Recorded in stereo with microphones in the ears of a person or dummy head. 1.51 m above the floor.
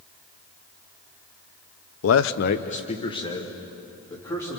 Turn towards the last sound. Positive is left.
turn(degrees=10)  # may be behind; listen again after turning